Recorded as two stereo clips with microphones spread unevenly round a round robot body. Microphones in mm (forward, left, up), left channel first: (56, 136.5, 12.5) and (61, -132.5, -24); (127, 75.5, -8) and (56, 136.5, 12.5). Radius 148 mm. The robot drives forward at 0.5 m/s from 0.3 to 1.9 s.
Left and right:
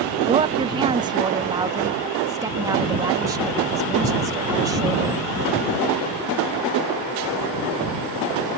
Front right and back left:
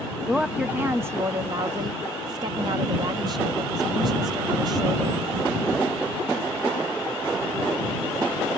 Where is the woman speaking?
115° right; by 5.2 s 160° right.